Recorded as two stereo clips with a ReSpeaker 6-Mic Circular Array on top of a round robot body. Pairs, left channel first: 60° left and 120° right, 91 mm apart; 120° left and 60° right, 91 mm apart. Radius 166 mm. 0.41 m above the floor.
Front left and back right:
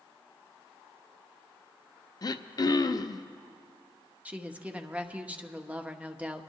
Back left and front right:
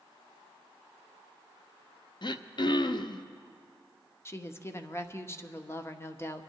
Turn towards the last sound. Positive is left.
turn(degrees=170)